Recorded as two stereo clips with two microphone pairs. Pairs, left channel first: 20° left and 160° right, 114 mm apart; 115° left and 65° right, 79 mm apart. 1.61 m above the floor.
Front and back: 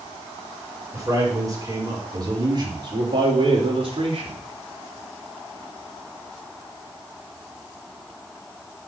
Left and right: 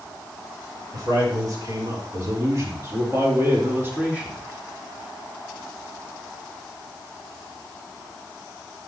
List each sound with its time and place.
0.9 s a man speaking: 105° right, 5 m; by 4.4 s 135° right, 3.5 m